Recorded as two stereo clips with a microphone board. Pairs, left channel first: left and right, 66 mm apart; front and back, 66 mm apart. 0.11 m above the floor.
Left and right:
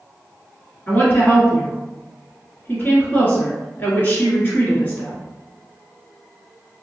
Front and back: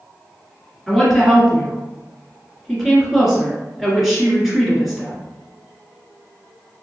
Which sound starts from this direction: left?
A woman speaking, at 0.9 s.